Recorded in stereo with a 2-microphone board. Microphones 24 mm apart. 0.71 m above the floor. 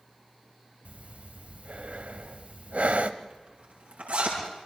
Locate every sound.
0.8 s breathing: 75° right (ahead or behind), 1.0 m
3.2 s a zipper: 85° right, 8 m